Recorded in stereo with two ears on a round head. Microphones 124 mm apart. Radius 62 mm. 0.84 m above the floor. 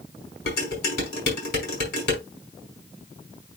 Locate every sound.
0.5 s dishes clattering: 75° left (ahead or behind), 5 m